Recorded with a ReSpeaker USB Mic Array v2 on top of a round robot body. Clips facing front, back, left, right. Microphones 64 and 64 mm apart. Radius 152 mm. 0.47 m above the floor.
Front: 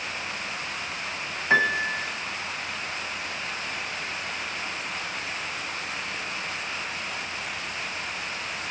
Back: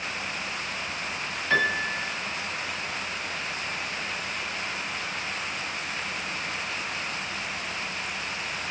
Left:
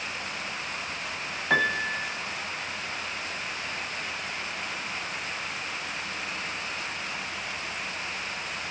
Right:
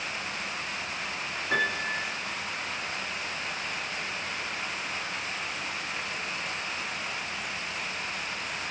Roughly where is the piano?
Ahead left.